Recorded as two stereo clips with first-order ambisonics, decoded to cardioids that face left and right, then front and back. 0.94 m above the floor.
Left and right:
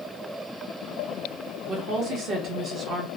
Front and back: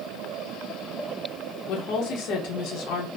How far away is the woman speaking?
About 1.0 m.